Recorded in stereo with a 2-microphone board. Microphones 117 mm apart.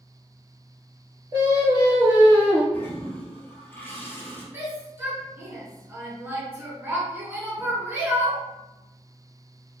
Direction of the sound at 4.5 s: 20° right (ahead or behind).